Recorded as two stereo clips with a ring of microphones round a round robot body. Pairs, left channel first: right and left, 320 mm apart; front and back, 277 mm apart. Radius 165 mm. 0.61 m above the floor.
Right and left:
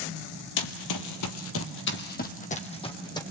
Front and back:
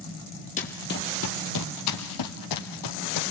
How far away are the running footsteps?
About 1.4 m.